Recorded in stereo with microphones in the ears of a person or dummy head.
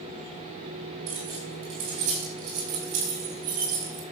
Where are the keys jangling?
70° right (ahead or behind), 5.5 m; by 4.0 s 80° right, 5 m.